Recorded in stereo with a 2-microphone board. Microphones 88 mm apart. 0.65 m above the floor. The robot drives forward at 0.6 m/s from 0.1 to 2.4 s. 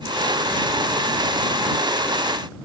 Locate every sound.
Only background noise.